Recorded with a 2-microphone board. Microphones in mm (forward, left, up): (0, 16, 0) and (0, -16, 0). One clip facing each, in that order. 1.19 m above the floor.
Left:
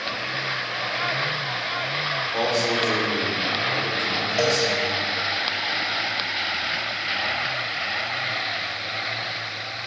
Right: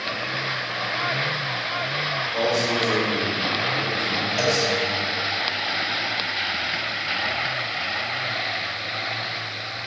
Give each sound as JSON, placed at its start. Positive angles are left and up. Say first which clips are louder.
{"t": 2.3, "sound": "a man speaking", "louder": "right 1 dB", "side_deg": 55, "distance_m": 5.0}
{"t": 4.4, "sound": "a cowbell", "louder": "left 1 dB", "side_deg": 30, "distance_m": 3.0}